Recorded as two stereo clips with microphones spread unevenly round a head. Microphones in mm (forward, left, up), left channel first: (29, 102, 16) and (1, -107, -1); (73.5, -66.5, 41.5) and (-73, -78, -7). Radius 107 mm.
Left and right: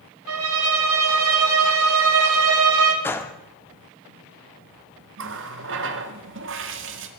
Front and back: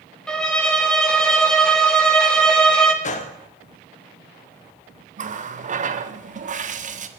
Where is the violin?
80° right, 2 m.